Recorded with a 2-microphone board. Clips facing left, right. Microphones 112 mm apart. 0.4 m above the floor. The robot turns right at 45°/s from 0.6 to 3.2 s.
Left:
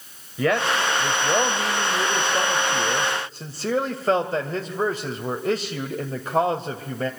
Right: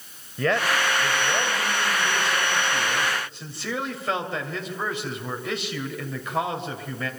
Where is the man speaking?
10° left, 2.5 m; by 7.1 s 125° left, 2.5 m.